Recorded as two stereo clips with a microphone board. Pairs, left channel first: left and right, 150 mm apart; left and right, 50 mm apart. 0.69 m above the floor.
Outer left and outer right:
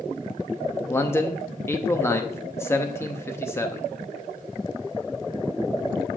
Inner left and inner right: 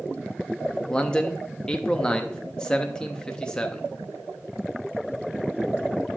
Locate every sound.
0.9 s a man speaking: 15° left (ahead or behind), 0.5 m